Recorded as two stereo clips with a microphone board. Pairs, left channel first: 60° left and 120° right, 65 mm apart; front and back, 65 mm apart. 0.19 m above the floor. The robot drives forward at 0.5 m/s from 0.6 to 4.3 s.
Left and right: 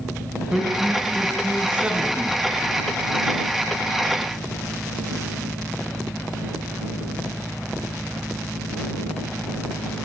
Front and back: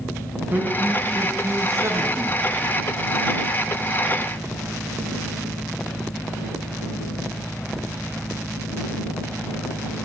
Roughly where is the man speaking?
Behind.